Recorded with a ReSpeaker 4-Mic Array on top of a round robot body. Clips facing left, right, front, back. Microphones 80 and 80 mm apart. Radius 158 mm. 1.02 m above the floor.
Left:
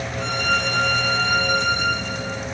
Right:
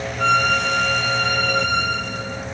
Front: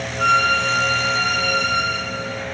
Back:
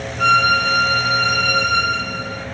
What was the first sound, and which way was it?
A violin, 100° right.